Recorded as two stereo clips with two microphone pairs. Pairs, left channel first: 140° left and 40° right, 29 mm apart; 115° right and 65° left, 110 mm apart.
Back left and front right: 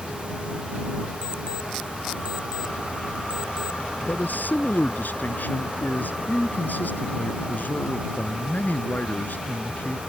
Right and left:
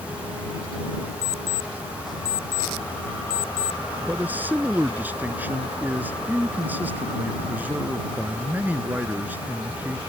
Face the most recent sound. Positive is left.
turn(degrees=140)